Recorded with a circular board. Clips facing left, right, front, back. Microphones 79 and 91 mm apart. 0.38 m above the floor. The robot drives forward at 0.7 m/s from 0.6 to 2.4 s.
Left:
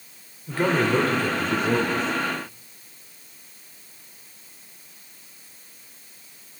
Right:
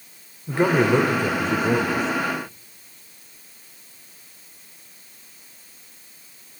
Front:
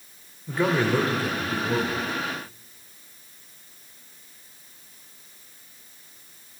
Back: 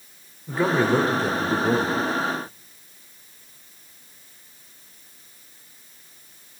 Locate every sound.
0.5 s a man speaking: 100° right, 0.9 m; by 2.0 s 165° right, 1.4 m